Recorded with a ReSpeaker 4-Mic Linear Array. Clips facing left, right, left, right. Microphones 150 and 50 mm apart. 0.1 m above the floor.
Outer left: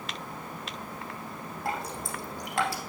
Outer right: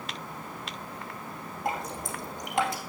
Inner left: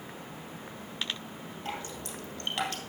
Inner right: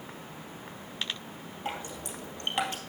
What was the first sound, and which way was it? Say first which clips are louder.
Dripping: outer right 1 dB, inner right 2 dB; 20° right (ahead or behind).